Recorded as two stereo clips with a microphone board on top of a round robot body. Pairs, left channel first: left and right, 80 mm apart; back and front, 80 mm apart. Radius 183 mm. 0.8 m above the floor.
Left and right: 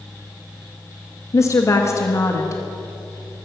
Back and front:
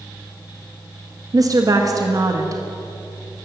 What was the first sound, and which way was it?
A woman speaking, 40° left.